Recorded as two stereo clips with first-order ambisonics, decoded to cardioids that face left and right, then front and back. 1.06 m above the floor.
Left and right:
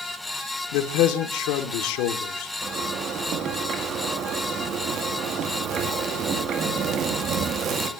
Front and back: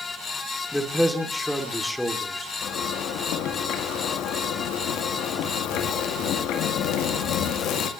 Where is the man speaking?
85° left, 2.5 m.